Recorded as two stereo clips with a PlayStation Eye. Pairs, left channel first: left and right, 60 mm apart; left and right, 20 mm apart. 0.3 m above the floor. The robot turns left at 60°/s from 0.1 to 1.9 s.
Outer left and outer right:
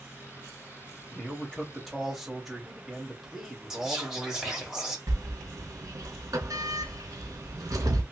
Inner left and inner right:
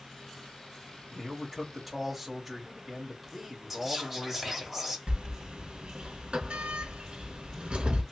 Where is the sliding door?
60° right (ahead or behind), 0.9 m.